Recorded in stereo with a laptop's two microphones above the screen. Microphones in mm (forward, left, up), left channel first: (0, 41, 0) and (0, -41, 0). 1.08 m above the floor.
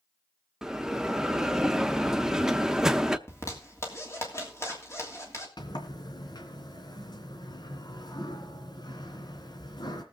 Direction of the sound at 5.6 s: 60° left (ahead or behind).